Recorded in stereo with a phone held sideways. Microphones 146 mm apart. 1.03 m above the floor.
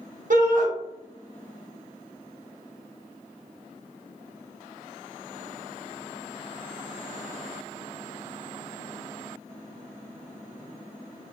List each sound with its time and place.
0.3 s a shout: 65° right (ahead or behind), 0.9 m